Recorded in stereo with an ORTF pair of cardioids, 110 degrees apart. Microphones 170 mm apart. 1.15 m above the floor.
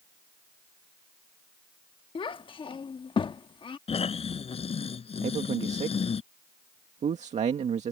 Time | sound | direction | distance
2.1 | a child speaking | 30° left | ?
3.9 | snoring | 35° left | ?
5.2 | a man speaking | 45° right | ?